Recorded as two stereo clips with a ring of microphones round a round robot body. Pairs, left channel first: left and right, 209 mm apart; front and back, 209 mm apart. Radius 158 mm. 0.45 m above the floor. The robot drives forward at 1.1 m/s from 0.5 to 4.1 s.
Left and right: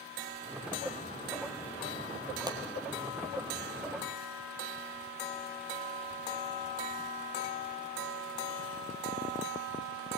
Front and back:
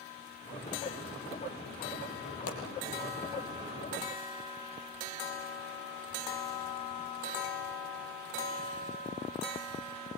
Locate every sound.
2.5 s a pop: 20° right, 4 m